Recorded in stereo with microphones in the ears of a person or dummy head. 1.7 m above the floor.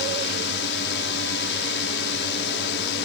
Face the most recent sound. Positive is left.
turn(degrees=60)  # may be behind; listen again after turning